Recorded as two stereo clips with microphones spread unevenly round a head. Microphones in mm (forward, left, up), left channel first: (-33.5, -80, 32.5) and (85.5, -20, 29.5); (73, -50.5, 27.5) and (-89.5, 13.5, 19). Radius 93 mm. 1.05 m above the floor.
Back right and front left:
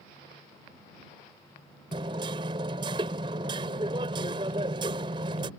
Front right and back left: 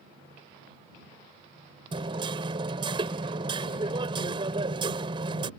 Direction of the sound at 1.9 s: 90° left.